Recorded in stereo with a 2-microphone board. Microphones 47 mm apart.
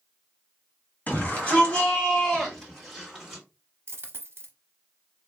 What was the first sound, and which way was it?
A shout, 35° left (ahead or behind).